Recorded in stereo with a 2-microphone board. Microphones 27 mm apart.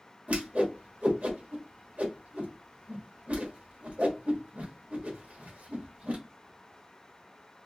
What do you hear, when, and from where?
0.3 s a whoosh: 60° right (ahead or behind), 1.2 m